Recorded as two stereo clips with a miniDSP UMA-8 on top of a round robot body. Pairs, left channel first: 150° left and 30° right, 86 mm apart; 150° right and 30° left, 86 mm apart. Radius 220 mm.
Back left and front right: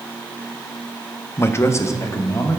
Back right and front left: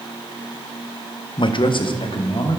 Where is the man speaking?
150° right, 0.7 m; by 2.6 s 160° right, 1.3 m.